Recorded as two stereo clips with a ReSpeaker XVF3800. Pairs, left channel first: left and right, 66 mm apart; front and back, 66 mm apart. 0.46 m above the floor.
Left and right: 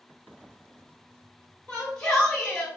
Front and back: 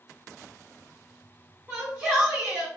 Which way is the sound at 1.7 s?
150° left.